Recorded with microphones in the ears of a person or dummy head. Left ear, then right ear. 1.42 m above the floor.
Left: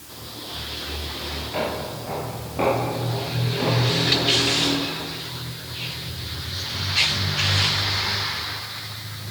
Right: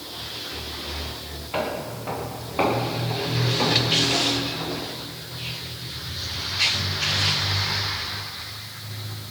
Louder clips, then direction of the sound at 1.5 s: Right 1 dB; 40° right (ahead or behind).